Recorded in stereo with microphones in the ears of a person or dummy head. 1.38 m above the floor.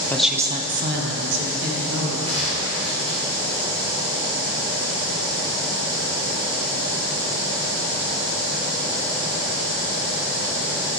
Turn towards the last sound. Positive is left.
turn(degrees=-30)  # may be behind; listen again after turning